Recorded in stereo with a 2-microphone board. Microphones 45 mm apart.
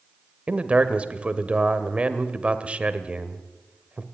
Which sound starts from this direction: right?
A man speaking, at 0.5 s.